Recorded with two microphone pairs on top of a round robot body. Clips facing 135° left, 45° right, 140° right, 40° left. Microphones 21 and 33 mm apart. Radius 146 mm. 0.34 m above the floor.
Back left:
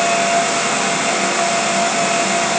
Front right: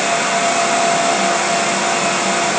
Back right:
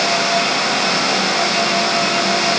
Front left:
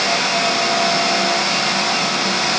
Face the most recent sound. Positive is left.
No sound to turn to.